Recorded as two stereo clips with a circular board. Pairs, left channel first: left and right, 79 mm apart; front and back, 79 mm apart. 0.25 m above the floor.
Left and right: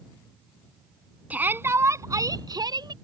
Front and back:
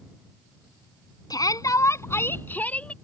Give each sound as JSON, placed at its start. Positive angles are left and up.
{"t": 1.3, "sound": "a shout", "azimuth_deg": -20}